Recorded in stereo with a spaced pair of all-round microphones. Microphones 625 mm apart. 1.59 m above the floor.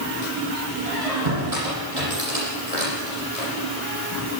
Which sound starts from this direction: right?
A squeak, at 0.8 s.